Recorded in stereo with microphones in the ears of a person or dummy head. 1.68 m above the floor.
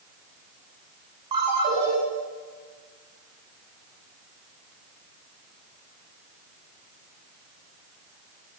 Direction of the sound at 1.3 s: 25° right (ahead or behind).